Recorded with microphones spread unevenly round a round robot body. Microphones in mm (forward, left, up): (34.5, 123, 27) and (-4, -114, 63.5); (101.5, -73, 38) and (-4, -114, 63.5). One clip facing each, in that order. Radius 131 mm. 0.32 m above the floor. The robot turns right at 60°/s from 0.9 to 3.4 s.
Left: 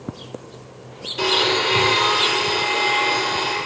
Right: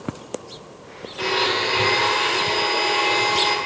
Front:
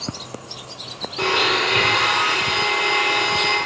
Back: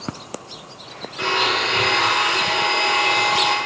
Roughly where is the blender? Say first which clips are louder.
Left 3 dB, front 1 dB; ahead left.